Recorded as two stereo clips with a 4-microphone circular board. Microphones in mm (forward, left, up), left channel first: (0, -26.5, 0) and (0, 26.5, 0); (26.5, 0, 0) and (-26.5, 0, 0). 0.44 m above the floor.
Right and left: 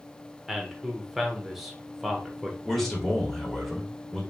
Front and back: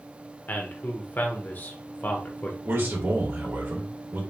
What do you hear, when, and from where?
0.5 s a man speaking: 5° left, 1.0 m
2.6 s a man speaking: 175° right, 1.7 m